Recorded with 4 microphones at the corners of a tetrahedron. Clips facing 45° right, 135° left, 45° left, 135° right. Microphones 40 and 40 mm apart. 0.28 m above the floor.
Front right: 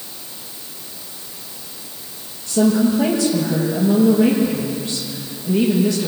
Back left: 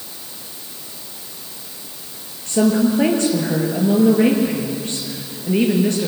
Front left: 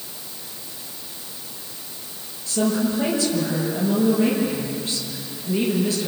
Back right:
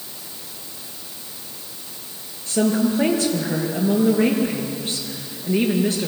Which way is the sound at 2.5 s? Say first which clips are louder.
Even, back right 2 dB; 175° left.